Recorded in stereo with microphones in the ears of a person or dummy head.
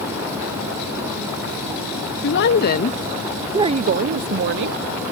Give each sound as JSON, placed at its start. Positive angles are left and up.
{"t": 2.2, "sound": "a woman speaking", "side_deg": 60}